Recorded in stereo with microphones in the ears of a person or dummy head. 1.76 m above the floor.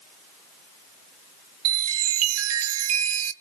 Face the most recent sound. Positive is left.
turn(degrees=-80)